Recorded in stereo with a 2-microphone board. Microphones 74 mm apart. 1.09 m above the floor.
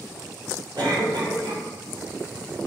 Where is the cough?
75° right (ahead or behind), 4.5 m.